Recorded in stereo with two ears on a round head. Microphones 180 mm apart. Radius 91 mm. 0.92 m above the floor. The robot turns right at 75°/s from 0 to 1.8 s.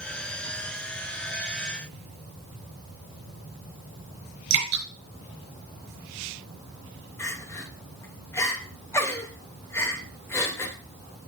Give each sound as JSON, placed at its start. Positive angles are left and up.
{"t": 4.5, "sound": "dripping", "side_deg": -85, "distance_m": 5.5}
{"t": 7.2, "sound": "crying", "side_deg": 15, "distance_m": 2.0}